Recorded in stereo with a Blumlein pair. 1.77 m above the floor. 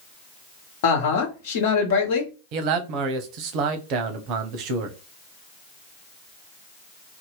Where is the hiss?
No hiss in this recording.